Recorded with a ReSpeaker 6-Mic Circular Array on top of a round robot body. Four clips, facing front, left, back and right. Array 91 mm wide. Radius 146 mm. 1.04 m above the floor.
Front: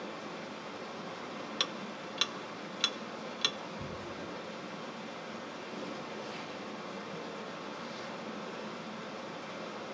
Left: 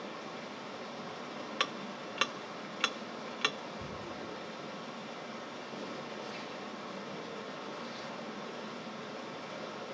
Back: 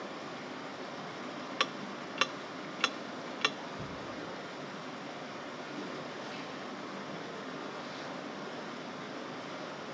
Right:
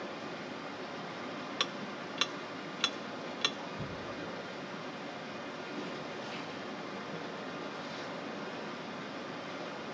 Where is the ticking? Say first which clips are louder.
Left 1 dB, back 3 dB; 150° left, 0.5 m.